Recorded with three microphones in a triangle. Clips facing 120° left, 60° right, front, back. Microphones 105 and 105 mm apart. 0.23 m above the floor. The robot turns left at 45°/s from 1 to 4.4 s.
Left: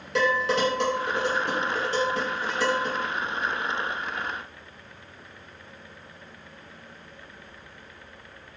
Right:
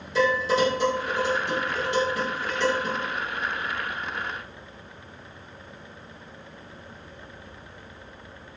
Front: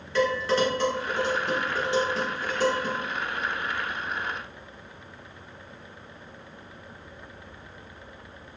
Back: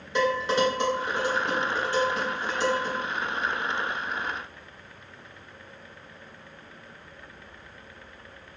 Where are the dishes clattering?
110° left, 1.7 m; by 3.0 s 20° left, 1.7 m.